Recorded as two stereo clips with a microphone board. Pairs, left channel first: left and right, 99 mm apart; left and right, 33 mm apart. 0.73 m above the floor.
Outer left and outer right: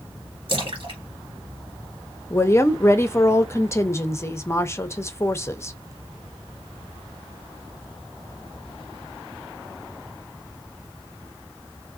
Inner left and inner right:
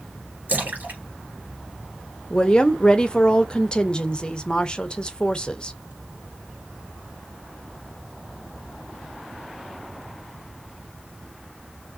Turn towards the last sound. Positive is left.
turn(degrees=25)  # may be behind; listen again after turning